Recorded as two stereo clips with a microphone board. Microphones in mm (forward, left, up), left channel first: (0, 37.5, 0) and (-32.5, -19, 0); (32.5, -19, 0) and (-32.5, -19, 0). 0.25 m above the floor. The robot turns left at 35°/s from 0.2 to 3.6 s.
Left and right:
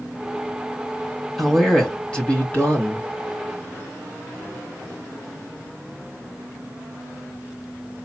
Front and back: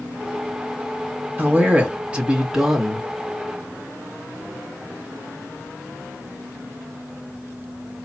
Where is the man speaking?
145° left, 1.7 m; by 3.1 s 85° left, 1.7 m.